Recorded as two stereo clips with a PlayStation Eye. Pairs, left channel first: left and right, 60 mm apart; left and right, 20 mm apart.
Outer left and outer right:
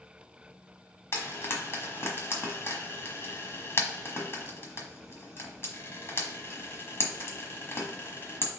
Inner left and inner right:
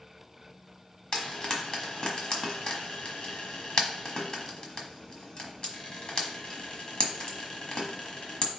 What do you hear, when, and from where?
1.1 s frying: 45° left (ahead or behind), 1.2 m